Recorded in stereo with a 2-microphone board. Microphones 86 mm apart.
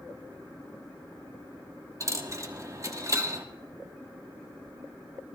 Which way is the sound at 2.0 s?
40° right (ahead or behind).